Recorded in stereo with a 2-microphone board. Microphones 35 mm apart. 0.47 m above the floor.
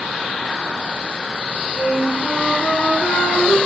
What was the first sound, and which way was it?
A flute, 80° left.